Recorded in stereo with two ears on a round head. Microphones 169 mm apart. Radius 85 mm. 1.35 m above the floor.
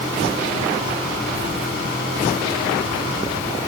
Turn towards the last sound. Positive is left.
No sound to turn to.